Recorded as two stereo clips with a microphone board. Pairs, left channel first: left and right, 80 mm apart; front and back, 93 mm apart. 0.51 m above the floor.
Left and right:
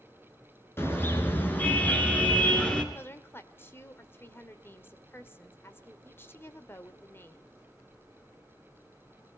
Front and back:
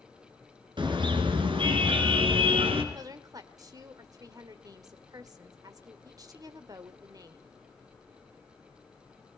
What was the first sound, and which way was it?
A car horn, 150° left.